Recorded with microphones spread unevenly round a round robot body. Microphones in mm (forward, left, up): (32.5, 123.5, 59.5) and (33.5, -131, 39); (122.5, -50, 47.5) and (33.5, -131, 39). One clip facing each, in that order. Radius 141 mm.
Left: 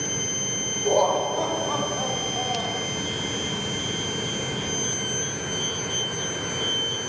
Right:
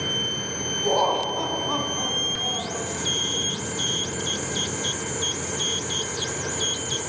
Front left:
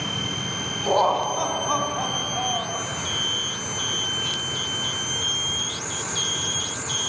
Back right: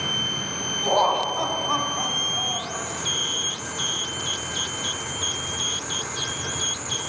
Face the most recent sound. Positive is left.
turn(degrees=-15)